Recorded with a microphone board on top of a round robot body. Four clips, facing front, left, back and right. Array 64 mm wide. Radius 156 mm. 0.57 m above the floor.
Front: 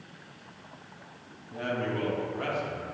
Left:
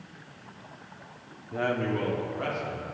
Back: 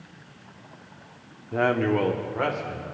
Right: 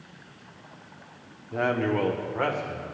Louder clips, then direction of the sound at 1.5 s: Right 3 dB, back 9 dB; 175° right.